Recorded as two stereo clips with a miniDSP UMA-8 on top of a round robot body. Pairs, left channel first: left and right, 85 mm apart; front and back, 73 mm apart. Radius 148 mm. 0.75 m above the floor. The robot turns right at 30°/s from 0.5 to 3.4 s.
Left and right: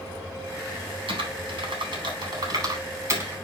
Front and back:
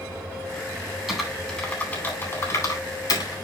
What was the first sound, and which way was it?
Typing on a keyboard, 100° right.